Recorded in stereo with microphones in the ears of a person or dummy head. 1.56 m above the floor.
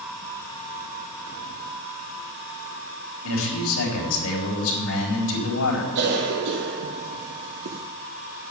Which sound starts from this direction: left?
A man speaking, at 3.2 s.